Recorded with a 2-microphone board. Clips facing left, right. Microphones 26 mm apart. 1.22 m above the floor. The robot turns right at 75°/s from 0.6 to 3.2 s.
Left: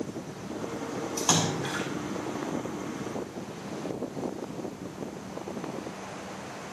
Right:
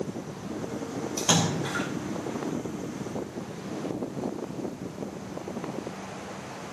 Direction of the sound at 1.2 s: 15° right (ahead or behind).